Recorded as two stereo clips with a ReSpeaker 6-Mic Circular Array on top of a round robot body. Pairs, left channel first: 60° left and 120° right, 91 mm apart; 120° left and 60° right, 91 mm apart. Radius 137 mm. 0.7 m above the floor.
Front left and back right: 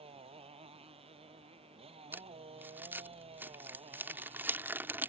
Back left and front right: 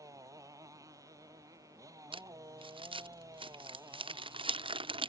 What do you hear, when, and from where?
0.0 s a motorcycle: 115° right
2.1 s crumpling: 55° right